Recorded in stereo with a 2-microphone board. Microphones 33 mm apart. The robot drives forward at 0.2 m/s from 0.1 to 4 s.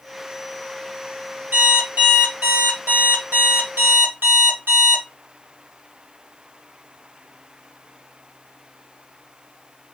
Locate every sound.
1.5 s an alarm clock: 65° right (ahead or behind), 1.4 m; by 5.0 s 80° right, 1.3 m